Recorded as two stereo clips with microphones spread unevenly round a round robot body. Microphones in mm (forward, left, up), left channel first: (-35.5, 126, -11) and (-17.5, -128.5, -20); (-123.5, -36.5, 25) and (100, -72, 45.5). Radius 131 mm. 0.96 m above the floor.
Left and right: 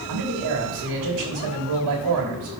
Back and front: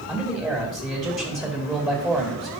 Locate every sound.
0.1 s a man speaking: 90° right, 2 m